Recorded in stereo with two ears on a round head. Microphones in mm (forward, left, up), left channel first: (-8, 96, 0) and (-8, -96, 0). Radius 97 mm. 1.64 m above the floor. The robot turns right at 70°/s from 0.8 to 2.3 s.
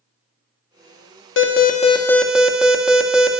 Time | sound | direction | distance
1.4 | an alarm | 120° left | 2.0 m